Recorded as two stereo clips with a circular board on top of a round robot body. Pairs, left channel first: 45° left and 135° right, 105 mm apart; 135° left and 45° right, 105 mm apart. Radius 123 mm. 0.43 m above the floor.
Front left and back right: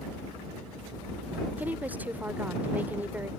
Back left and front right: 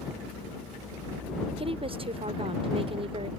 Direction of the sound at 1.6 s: 60° right.